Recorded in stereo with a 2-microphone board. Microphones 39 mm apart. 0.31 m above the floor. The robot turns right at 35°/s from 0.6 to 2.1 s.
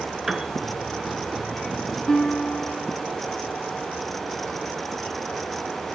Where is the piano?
5° right (ahead or behind), 1.2 m.